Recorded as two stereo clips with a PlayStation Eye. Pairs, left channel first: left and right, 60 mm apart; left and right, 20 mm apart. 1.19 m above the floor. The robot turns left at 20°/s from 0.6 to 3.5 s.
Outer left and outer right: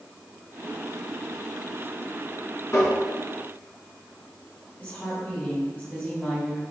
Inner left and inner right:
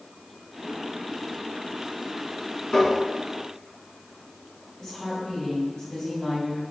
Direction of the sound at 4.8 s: 40° left (ahead or behind).